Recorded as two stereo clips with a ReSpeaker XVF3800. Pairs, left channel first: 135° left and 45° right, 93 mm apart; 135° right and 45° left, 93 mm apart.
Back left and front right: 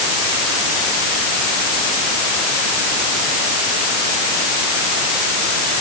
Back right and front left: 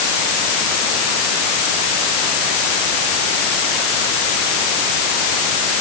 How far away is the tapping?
No tapping in this recording.